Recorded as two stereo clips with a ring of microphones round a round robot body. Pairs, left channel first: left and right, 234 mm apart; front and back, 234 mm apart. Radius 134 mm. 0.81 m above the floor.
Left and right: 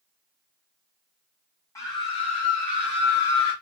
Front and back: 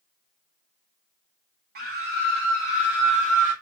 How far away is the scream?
About 1.0 m.